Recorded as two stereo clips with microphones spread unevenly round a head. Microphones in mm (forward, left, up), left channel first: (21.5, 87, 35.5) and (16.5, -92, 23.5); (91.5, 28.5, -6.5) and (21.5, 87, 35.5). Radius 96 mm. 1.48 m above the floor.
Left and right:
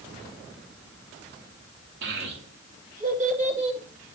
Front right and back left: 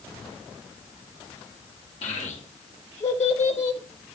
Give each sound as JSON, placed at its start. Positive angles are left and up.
{"t": 2.0, "sound": "a child speaking", "azimuth_deg": -70, "distance_m": 2.5}